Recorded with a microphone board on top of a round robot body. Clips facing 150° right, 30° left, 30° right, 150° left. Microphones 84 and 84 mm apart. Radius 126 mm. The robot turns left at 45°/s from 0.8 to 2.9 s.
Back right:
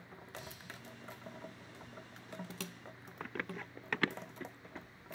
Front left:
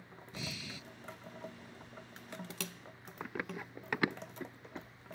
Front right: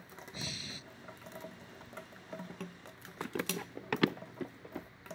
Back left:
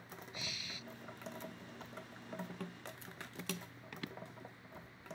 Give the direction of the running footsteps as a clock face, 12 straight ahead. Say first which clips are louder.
Front left 1 dB, front right 9 dB; 2 o'clock.